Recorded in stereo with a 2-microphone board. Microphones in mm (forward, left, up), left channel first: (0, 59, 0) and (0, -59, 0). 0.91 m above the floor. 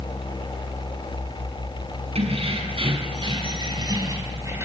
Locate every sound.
2.1 s keys jangling: 60° right (ahead or behind), 6.5 m; by 4.7 s 20° right (ahead or behind), 4.5 m